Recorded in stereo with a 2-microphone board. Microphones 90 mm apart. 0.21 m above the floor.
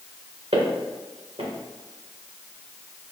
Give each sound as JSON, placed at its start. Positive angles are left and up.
{"t": 0.5, "sound": "footsteps", "side_deg": -70, "distance_m": 2.0}